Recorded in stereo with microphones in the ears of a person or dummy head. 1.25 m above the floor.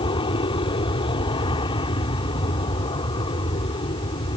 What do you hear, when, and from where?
0.0 s an aircraft: 35° left (ahead or behind)